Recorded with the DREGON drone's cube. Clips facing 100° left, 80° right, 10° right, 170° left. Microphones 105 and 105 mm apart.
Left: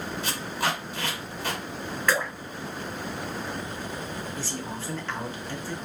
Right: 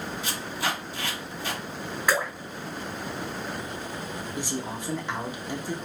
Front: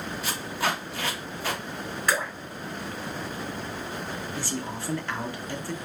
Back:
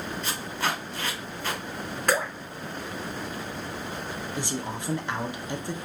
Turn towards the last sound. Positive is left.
turn(degrees=-135)